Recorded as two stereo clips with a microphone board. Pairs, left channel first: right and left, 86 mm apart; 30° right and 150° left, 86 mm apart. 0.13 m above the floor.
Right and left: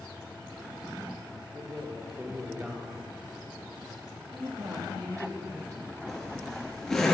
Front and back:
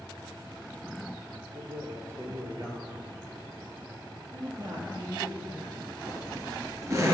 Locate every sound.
1.5 s a man speaking: 145° left, 2.5 m
4.3 s a woman speaking: 125° left, 2.5 m
6.1 s a zipper: 175° right, 2 m